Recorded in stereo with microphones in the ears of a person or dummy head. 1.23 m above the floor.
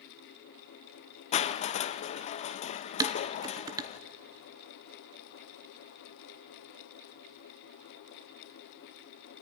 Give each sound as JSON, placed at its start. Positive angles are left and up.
{"t": 1.3, "sound": "crushing", "side_deg": 35, "distance_m": 0.5}
{"t": 3.0, "sound": "dishes clattering", "side_deg": -20, "distance_m": 0.6}